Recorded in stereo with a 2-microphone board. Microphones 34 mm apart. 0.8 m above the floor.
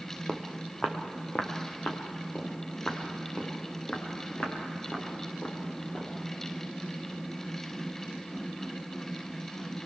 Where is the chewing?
I don't hear chewing.